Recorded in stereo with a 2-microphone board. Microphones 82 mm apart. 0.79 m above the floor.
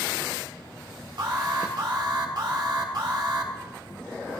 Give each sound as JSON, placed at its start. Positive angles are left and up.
{"t": 1.2, "sound": "an alarm", "side_deg": -60, "distance_m": 1.8}